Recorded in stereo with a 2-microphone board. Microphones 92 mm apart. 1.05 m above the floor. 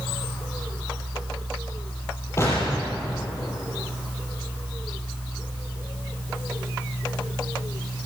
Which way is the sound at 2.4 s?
30° left (ahead or behind).